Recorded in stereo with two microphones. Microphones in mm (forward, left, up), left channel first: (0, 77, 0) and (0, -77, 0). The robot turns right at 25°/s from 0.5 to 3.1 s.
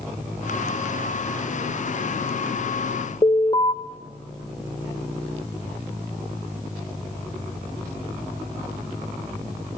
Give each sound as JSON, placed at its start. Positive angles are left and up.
{"t": 3.2, "sound": "an alarm", "side_deg": 35, "distance_m": 2.0}